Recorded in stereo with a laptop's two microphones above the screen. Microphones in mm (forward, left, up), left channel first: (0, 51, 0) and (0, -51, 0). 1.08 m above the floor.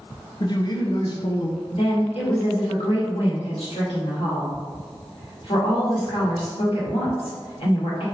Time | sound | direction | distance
0.4 | a man speaking | 45° left (ahead or behind) | 0.6 m
1.7 | a woman speaking | 70° left (ahead or behind) | 1.5 m